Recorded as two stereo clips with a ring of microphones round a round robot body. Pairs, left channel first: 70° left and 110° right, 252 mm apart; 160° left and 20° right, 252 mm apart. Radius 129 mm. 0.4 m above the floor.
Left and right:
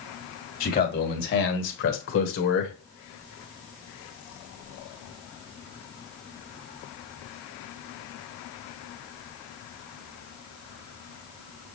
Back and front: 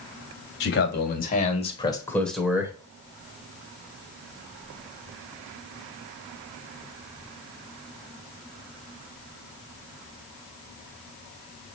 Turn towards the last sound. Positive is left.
turn(degrees=50)